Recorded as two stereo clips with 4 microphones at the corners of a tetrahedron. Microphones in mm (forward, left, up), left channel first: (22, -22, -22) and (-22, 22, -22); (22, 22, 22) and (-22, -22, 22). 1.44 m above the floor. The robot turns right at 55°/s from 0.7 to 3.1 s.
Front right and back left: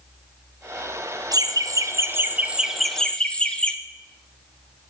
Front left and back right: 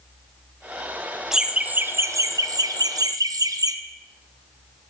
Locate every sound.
1.3 s laughter: 140° left, 0.7 m; by 3.8 s 120° right, 0.7 m